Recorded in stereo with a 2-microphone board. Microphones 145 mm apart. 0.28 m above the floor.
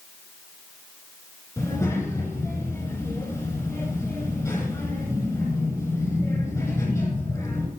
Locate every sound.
1.6 s a child speaking: 20° left (ahead or behind), 6 m